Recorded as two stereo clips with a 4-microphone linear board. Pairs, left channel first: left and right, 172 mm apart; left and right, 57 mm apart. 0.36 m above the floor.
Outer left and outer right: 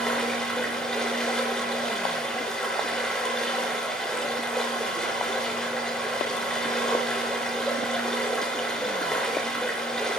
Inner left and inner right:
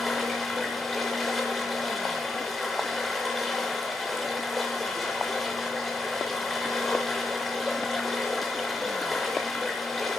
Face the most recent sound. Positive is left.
turn(degrees=5)  # may be behind; listen again after turning